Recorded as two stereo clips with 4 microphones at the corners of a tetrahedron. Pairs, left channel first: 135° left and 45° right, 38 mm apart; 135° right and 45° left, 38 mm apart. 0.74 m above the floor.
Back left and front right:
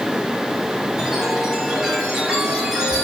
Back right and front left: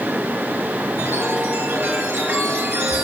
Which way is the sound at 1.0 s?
35° left.